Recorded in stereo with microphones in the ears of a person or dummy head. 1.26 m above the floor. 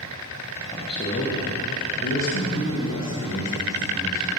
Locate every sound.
0.7 s a man speaking: 25° left (ahead or behind), 1.0 m; by 4.3 s 75° left (ahead or behind), 2 m